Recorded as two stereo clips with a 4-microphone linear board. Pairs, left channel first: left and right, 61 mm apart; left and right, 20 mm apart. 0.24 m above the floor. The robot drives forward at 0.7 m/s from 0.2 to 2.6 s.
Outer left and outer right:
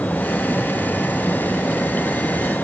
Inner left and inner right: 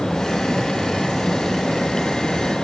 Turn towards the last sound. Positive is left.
No sound to turn to.